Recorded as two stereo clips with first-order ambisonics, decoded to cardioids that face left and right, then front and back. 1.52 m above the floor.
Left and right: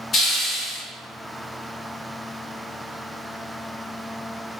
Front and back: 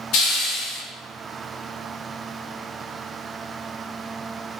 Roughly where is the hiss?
Ahead left.